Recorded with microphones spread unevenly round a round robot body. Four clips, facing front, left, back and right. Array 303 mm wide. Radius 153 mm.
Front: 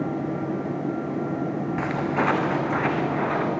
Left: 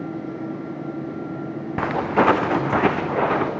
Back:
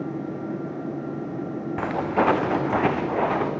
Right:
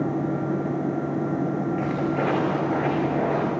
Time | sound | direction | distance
1.8 | footsteps | 90° left | 2.5 m